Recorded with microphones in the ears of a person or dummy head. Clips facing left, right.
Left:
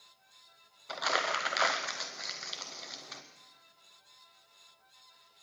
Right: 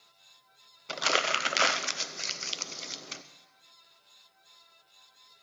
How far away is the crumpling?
About 0.8 m.